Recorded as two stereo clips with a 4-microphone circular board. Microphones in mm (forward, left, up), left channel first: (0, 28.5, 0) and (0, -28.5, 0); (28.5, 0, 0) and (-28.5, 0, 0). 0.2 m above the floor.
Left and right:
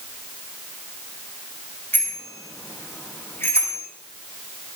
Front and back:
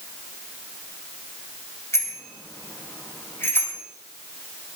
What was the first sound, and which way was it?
A bicycle bell, 35° left.